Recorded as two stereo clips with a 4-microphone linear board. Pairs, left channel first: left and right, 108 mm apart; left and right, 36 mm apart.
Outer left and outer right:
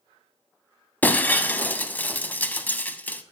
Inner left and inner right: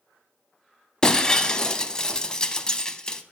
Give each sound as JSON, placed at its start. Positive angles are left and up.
{"t": 1.0, "sound": "breaking glass", "side_deg": 15, "distance_m": 0.5}